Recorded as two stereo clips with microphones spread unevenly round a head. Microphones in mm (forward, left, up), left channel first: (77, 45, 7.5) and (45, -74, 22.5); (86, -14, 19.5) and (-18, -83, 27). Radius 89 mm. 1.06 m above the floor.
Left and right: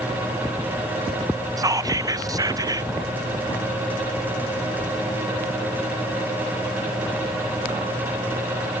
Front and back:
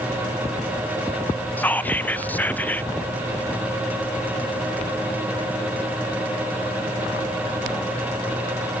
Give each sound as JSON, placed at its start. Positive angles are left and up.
{"t": 1.6, "sound": "whispering", "azimuth_deg": -40, "distance_m": 0.7}